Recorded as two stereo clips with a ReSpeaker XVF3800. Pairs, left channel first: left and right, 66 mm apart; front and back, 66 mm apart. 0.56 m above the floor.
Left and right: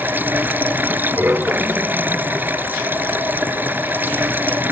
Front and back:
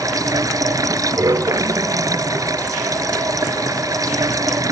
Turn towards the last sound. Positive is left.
turn(degrees=-150)